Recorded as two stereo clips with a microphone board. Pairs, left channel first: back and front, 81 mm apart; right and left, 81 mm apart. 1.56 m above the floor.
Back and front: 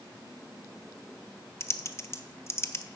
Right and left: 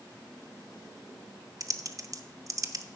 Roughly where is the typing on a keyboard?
Behind left.